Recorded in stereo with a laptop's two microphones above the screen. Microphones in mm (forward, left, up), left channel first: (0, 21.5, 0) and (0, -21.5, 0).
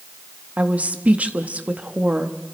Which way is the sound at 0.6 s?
35° right (ahead or behind).